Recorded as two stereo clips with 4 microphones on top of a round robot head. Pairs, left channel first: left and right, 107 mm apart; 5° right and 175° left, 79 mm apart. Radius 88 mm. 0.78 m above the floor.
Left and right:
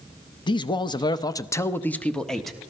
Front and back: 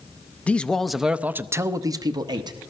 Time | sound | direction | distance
0.5 | a man speaking | 65° left | 0.9 m